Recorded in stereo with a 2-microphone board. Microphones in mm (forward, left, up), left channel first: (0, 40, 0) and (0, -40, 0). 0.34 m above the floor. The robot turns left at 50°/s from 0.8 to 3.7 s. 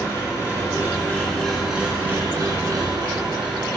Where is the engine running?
40° left, 3.5 m; by 3.8 s 105° right, 3.5 m.